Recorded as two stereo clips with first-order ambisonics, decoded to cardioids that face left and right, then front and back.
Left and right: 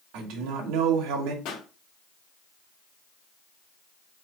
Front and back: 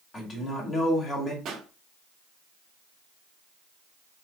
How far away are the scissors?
I don't hear scissors.